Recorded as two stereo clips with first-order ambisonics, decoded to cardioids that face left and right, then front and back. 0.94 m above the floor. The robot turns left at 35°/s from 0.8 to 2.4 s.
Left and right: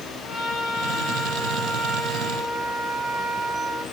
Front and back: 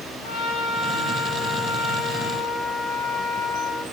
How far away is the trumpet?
About 6.5 m.